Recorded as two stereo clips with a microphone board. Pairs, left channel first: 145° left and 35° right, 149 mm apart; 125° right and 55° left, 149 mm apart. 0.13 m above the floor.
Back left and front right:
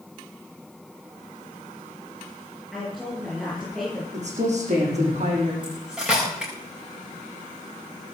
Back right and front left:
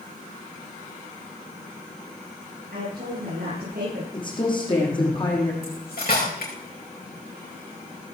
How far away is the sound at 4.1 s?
About 5.5 m.